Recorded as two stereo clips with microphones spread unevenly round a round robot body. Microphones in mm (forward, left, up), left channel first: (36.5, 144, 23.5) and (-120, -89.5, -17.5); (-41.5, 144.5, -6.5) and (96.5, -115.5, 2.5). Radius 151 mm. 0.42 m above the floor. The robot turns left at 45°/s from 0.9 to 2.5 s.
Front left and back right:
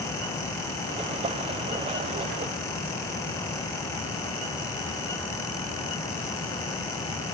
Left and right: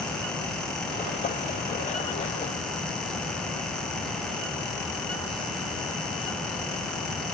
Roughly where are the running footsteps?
No running footsteps in this recording.